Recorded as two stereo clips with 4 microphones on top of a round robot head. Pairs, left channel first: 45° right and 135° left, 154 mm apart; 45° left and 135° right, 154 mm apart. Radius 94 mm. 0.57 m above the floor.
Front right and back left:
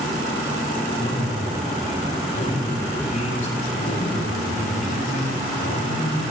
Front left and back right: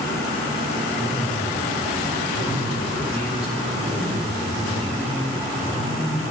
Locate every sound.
1.0 s a man speaking: 85° right, 7.5 m